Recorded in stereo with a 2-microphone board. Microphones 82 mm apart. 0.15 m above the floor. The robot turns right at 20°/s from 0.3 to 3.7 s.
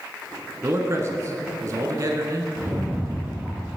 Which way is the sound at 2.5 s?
30° right (ahead or behind).